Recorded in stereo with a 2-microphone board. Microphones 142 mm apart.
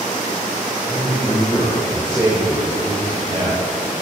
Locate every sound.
0.9 s a man speaking: 25° left (ahead or behind), 1.9 m; by 3.6 s 65° right (ahead or behind), 2.5 m